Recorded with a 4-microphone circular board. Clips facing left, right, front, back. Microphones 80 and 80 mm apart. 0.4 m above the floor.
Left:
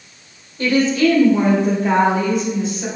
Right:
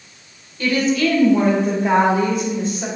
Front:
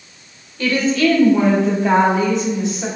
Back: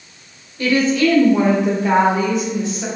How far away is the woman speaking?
About 1.1 m.